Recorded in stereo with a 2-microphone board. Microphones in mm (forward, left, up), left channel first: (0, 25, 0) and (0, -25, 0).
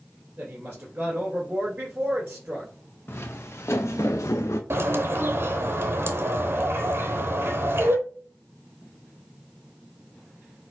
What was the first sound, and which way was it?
A woman speaking, 35° right (ahead or behind).